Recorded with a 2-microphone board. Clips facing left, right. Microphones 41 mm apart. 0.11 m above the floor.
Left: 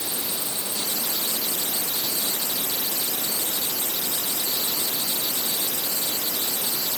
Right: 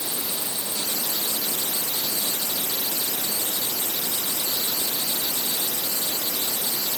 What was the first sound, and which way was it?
Only background noise.